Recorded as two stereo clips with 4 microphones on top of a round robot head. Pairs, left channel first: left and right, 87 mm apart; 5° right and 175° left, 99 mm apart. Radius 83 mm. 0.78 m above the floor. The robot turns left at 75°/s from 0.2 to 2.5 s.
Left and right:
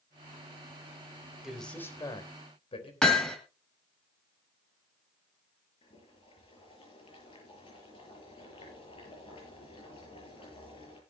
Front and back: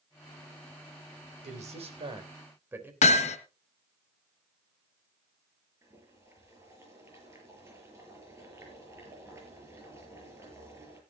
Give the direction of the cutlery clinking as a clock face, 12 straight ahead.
No cutlery clinking in this recording.